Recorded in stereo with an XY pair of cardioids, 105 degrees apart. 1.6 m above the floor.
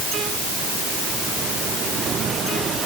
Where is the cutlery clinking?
I don't hear cutlery clinking.